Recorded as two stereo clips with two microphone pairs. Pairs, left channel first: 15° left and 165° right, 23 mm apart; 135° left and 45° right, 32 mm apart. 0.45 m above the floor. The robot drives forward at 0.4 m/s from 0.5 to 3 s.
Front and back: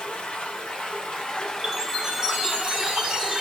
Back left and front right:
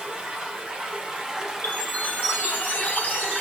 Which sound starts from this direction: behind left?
A chime, at 1.6 s.